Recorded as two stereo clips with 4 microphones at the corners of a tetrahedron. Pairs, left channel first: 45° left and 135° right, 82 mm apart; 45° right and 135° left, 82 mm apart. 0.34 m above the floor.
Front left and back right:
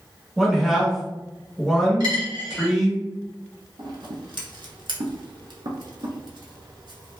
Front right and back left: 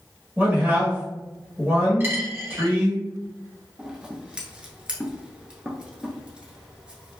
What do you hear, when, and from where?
0.4 s a man speaking: 135° left, 0.9 m
2.0 s a dropped coin: 160° right, 0.9 m
3.8 s scissors: 145° right, 0.7 m